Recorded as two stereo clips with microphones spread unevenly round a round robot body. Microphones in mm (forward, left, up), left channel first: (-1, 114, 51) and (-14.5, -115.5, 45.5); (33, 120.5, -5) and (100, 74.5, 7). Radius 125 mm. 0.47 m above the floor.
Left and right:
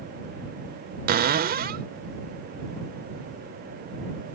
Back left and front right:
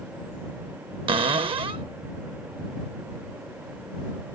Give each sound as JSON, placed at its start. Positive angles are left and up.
{"t": 1.1, "sound": "a cupboard door", "azimuth_deg": -45}